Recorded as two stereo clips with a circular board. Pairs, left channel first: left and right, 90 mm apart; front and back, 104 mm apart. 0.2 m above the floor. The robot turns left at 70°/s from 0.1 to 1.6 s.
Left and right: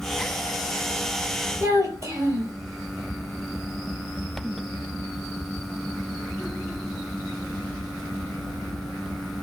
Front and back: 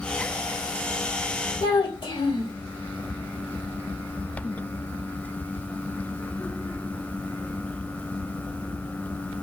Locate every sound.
1.6 s a child speaking: 35° right, 2.5 m